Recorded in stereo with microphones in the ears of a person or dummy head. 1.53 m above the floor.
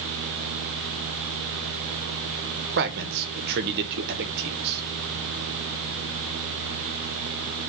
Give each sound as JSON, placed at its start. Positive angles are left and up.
{"t": 2.8, "sound": "a man speaking", "side_deg": -50, "distance_m": 1.2}